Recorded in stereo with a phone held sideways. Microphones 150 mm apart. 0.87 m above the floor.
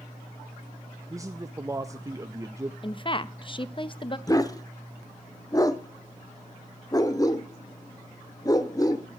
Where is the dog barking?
25° left (ahead or behind), 0.8 m.